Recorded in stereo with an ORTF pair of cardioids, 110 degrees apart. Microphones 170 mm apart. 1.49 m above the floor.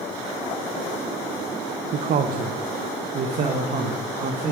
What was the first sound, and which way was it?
A man speaking, 55° right.